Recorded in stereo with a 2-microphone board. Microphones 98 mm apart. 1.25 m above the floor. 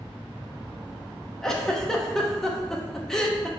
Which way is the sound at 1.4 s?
5° left (ahead or behind).